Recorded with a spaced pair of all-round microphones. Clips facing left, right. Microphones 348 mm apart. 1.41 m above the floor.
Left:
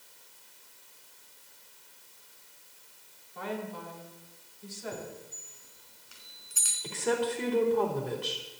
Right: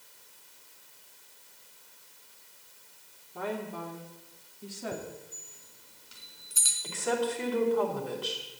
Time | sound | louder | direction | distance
3.4 | a woman speaking | right 2 dB | 60° right (ahead or behind) | 3 m
4.9 | a chime | right 2 dB | 50° right (ahead or behind) | 3.5 m
6.8 | a woman speaking | left 1 dB | 35° left (ahead or behind) | 4.5 m